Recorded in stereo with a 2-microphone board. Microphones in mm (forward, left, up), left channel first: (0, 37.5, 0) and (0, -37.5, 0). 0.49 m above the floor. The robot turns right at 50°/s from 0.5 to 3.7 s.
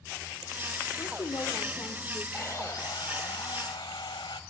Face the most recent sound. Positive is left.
turn(degrees=100)